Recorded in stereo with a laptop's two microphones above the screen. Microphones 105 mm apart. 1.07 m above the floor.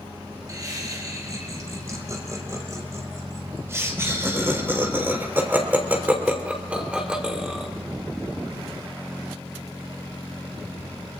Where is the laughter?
35° right (ahead or behind), 6 m; by 7.7 s 5° right (ahead or behind), 3 m.